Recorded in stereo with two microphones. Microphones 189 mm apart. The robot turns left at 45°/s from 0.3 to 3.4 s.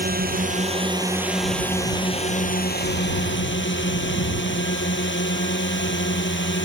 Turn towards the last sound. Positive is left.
turn(degrees=95)